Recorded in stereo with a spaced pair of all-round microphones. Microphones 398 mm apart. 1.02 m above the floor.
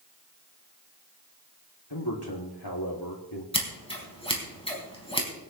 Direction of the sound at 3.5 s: 15° left (ahead or behind).